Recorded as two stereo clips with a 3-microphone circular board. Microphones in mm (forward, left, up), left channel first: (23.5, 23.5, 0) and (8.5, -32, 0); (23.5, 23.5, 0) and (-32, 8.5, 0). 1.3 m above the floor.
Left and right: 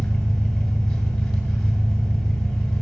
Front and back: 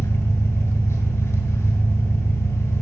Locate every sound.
0.0 s an engine running: 5° right, 1.7 m